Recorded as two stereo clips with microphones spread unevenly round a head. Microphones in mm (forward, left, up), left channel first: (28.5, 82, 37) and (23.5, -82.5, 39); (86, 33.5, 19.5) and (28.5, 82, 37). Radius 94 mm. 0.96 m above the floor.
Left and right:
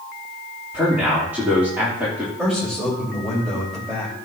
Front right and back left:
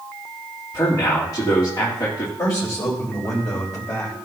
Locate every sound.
0.7 s a man speaking: 10° right, 3 m
2.4 s a man speaking: 5° right, 4.5 m